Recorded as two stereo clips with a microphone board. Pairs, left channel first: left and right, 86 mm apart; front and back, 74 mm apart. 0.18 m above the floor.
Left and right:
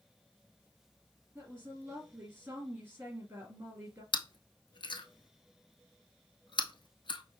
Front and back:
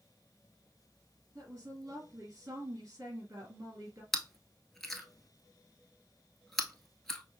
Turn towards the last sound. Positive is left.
turn(degrees=85)